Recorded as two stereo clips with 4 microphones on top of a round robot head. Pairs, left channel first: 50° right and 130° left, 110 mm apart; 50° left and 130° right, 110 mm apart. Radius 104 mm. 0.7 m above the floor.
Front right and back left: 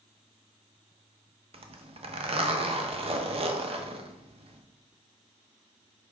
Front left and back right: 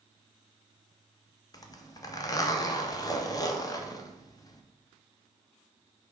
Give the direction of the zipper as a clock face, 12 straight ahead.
9 o'clock.